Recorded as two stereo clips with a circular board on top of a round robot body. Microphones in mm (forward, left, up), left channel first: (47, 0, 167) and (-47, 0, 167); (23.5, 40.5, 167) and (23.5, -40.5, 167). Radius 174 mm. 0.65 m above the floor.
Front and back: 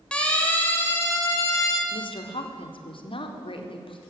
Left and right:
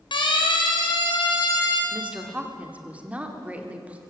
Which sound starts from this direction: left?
A siren, at 0.1 s.